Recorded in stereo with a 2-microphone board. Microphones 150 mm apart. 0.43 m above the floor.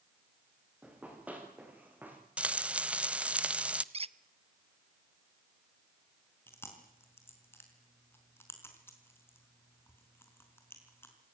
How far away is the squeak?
About 0.6 m.